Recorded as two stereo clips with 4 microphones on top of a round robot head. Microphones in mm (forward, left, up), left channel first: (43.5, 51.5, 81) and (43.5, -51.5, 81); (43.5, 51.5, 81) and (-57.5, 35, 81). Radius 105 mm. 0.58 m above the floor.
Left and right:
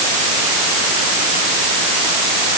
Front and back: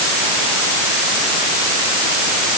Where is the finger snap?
No finger snap in this recording.